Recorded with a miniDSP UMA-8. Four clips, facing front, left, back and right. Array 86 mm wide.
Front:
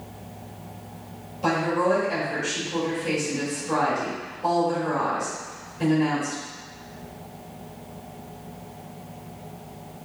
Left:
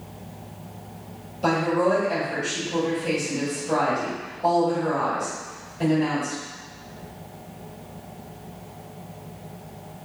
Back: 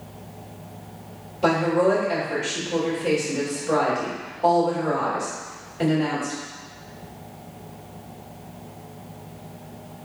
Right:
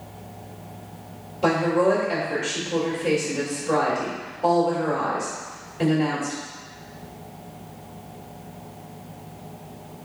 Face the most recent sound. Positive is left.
turn(degrees=-130)